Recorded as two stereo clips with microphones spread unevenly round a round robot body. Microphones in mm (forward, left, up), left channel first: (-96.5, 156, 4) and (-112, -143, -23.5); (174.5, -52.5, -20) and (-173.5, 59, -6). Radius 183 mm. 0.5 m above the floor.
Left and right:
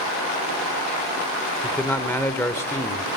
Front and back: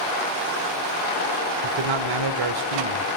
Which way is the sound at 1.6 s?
170° left.